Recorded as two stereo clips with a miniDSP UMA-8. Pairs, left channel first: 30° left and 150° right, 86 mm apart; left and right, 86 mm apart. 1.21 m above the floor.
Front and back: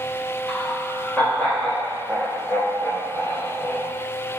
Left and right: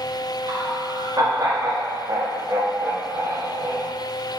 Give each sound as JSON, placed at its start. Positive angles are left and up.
{"t": 0.5, "sound": "laughter", "azimuth_deg": -45, "distance_m": 4.0}